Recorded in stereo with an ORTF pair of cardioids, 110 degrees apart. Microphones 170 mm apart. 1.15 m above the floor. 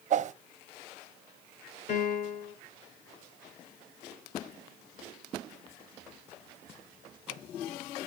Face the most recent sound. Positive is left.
turn(degrees=50)